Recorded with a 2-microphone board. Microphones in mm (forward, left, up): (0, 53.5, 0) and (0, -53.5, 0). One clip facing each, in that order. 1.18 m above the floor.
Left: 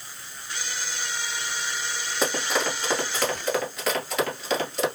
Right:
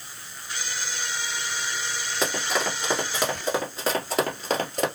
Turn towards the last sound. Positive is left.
turn(degrees=-45)  # may be behind; listen again after turning